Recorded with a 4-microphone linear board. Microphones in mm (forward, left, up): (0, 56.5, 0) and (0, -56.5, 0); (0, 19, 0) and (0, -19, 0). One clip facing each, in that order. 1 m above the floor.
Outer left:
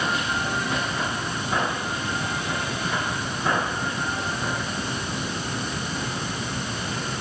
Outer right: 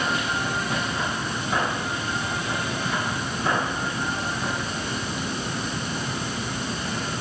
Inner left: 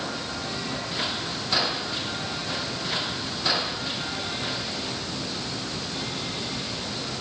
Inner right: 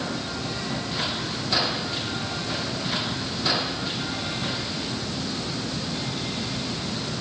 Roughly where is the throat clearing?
No throat clearing in this recording.